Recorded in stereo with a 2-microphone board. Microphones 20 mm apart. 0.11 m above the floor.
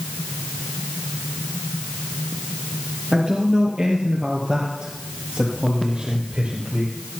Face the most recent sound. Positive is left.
turn(degrees=-60)  # may be behind; listen again after turning